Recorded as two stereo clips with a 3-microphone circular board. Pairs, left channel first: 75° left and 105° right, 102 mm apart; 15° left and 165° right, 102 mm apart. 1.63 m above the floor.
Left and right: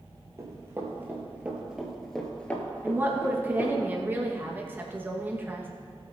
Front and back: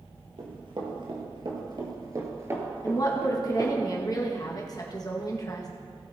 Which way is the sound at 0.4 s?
155° right.